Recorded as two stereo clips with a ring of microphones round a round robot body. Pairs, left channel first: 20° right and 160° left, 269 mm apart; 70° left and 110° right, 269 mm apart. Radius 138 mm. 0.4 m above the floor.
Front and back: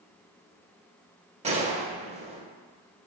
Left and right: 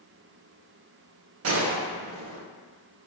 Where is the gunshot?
140° right, 0.6 m.